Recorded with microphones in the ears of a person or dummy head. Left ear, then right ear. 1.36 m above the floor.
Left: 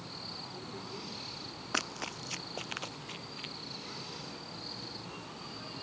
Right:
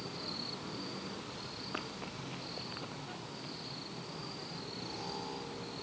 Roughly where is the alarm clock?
I don't hear an alarm clock.